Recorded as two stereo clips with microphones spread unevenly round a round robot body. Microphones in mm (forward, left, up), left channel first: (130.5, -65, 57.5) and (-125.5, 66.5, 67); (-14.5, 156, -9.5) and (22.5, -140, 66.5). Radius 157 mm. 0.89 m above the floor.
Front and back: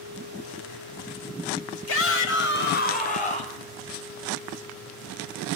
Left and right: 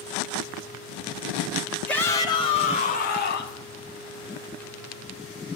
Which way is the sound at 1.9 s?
15° left.